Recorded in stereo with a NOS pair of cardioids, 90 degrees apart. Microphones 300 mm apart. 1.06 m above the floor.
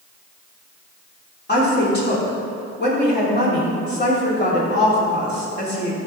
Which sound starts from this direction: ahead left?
A woman speaking, at 1.5 s.